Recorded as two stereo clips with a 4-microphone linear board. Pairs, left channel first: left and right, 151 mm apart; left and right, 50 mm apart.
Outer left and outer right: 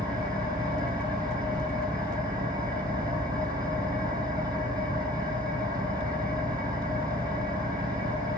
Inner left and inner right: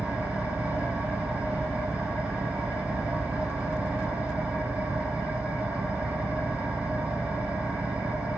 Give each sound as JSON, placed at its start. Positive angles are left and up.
{"t": 0.0, "sound": "an engine running", "side_deg": -25, "distance_m": 3.5}